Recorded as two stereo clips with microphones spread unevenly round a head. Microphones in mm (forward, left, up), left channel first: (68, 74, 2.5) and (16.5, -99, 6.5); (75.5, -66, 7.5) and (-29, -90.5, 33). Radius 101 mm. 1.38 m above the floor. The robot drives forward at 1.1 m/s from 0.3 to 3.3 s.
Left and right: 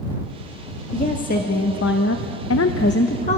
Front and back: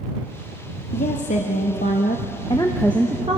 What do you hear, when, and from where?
0.9 s a woman speaking: 25° left, 2 m; by 3.4 s 130° left, 1.2 m